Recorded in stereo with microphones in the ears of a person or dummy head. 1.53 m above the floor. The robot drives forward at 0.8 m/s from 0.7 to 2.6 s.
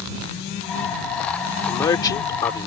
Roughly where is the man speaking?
Left.